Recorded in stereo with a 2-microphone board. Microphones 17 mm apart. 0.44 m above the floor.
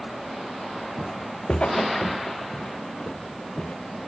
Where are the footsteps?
50° left (ahead or behind), 1.9 m; by 3.8 s 85° left, 4 m.